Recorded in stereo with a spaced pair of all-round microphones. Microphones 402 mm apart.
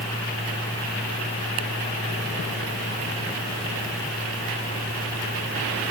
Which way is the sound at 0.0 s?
10° left (ahead or behind).